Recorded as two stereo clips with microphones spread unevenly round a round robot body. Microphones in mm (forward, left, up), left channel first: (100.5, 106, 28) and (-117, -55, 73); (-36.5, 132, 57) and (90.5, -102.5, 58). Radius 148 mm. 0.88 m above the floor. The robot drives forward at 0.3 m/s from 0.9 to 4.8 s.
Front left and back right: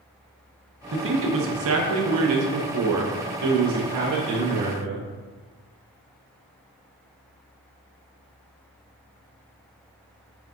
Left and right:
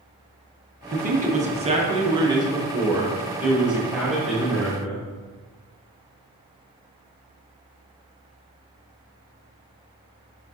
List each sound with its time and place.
0.9 s a man speaking: 105° right, 0.9 m; by 5.1 s 155° right, 1.6 m